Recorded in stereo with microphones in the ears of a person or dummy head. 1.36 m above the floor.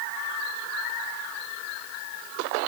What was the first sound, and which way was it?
Only background noise.